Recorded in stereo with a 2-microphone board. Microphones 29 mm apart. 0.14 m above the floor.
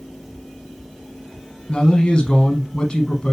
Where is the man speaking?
20° left (ahead or behind), 1.1 m.